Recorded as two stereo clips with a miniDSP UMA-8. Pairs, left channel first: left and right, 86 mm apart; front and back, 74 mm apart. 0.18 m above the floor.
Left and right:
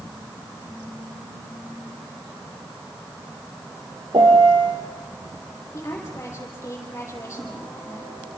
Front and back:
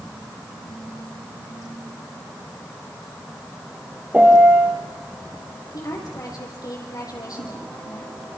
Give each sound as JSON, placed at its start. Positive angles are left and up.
{"t": 4.1, "sound": "a piano", "azimuth_deg": -110, "distance_m": 3.0}
{"t": 5.7, "sound": "a woman speaking", "azimuth_deg": 35, "distance_m": 6.0}